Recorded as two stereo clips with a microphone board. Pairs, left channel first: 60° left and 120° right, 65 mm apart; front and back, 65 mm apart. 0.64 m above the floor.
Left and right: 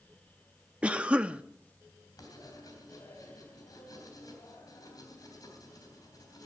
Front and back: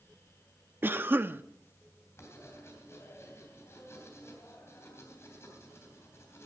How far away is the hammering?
I don't hear hammering.